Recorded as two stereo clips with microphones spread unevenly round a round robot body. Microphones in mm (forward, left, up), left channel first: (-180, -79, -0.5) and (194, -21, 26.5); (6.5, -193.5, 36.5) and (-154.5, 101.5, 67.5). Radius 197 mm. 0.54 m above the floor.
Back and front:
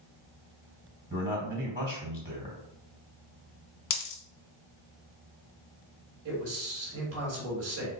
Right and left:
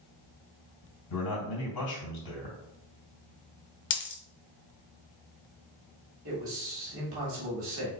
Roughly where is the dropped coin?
Behind right.